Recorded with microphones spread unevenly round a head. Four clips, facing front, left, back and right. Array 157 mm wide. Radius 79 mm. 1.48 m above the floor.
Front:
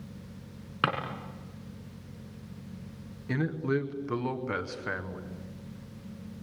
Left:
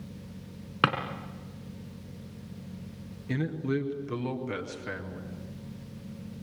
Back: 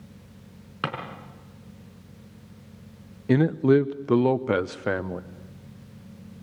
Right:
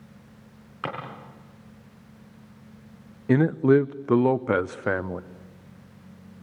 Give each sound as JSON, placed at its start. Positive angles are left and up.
{"t": 0.8, "sound": "a drawer", "azimuth_deg": 90, "distance_m": 4.5}
{"t": 3.3, "sound": "a man speaking", "azimuth_deg": -135, "distance_m": 0.8}